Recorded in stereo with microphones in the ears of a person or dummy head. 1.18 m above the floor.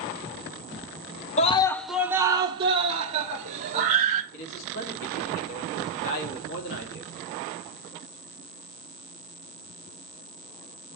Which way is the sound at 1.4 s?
30° left (ahead or behind).